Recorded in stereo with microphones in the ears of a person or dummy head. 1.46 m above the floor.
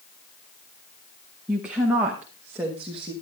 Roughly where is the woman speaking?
Centre.